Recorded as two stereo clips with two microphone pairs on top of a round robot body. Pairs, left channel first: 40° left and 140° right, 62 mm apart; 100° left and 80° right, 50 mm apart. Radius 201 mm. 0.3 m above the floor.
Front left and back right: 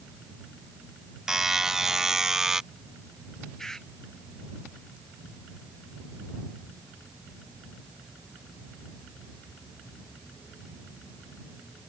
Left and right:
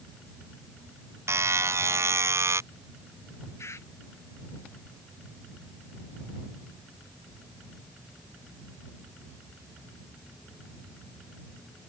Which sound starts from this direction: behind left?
A bird, at 3.6 s.